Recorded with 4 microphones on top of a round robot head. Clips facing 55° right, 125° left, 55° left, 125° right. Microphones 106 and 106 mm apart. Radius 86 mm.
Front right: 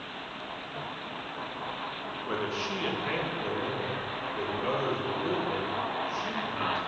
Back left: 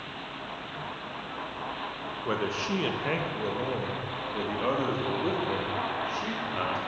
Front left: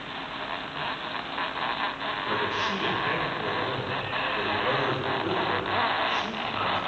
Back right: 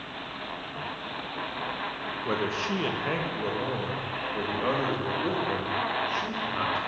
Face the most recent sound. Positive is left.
turn(degrees=170)